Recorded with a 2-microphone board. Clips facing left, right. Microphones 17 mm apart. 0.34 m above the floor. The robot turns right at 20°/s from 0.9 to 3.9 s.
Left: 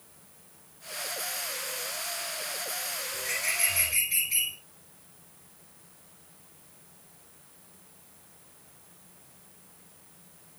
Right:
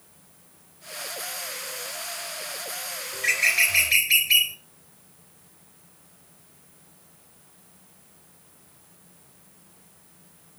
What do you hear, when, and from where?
3.1 s a bird: 85° right, 3.5 m; by 4.6 s 70° right (ahead or behind), 3.5 m